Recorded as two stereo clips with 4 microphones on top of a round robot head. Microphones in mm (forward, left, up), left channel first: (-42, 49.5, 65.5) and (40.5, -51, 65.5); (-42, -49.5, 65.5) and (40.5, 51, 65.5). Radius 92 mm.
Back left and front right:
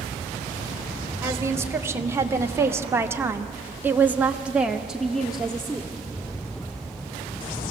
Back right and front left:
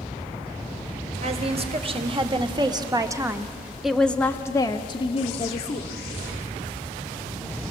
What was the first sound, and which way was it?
A woman speaking, 20° left.